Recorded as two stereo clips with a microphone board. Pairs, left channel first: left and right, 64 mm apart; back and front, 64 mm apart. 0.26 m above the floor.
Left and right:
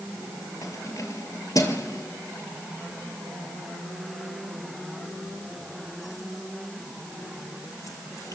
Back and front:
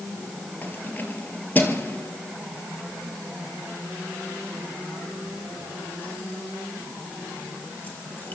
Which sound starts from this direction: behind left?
Keys jangling, at 0.6 s.